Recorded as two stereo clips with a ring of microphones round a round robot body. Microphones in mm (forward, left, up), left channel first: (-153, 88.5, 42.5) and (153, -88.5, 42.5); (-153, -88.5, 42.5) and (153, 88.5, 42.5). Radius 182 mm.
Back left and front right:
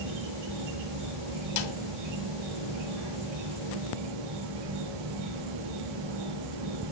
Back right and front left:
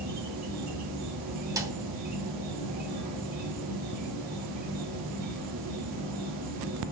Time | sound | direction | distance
0.0 | an insect | 35° right | 9 m
1.6 | a snare drum | 110° left | 2.5 m